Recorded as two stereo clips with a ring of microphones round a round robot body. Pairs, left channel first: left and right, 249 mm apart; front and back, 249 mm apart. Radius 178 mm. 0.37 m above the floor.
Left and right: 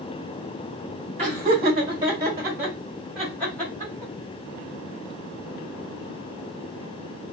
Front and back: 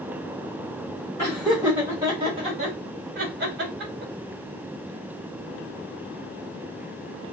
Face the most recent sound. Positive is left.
turn(degrees=165)